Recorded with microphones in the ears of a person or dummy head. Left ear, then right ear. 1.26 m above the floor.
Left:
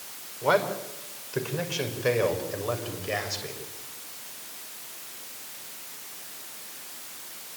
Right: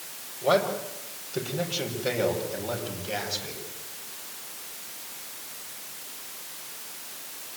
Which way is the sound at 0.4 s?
40° left (ahead or behind).